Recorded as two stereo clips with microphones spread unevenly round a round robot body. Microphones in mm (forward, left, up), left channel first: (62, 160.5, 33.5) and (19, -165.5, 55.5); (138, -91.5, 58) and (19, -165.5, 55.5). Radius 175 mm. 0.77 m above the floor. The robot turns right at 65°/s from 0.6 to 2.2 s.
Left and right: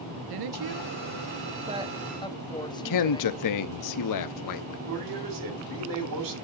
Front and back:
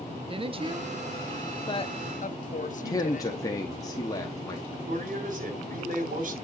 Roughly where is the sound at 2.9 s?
Left.